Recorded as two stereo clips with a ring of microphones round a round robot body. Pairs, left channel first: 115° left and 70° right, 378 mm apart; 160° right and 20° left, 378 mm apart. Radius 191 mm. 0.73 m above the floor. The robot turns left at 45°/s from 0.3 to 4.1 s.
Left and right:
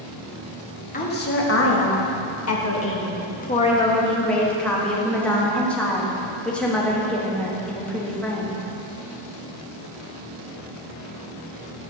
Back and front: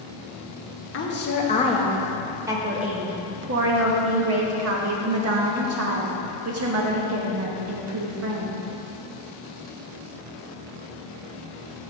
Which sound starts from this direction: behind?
A woman speaking, at 0.9 s.